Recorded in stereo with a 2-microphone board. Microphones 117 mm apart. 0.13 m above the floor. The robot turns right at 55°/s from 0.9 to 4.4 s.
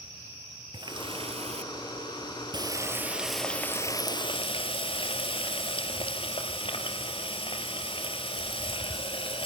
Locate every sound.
0.7 s a running tap: 135° right, 1.7 m; by 9.5 s 60° left, 1.7 m